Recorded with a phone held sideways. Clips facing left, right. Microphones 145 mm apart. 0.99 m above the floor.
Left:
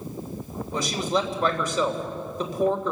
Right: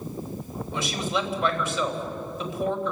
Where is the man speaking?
40° left (ahead or behind), 3 m.